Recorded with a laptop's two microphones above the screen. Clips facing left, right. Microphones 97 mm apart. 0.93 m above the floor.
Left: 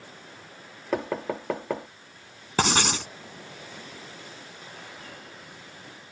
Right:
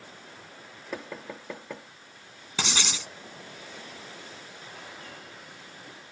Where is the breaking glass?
I don't hear breaking glass.